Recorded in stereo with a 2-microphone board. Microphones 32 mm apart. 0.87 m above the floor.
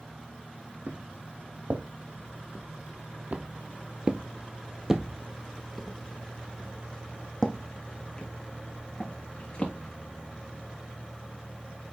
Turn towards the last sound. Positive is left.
turn(degrees=25)  # may be behind; listen again after turning